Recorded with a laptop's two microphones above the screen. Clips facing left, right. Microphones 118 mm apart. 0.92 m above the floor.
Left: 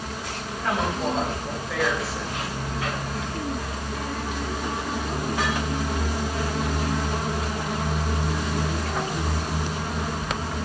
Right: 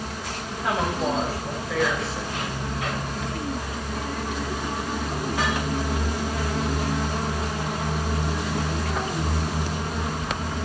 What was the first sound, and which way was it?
A woman speaking, 10° right (ahead or behind).